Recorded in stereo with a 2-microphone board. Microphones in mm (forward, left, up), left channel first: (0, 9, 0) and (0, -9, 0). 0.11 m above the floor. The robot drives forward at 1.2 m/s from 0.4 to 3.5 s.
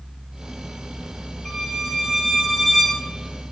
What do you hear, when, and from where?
1.4 s a violin: 30° left (ahead or behind), 4 m; by 3.0 s 20° left (ahead or behind), 5.5 m